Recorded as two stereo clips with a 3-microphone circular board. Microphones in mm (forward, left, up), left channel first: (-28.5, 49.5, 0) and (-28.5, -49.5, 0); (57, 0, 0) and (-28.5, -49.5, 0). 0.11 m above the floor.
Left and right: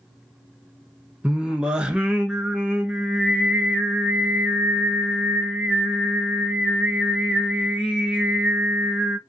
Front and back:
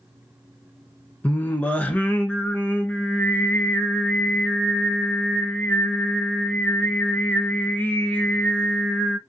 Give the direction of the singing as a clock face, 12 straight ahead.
1 o'clock.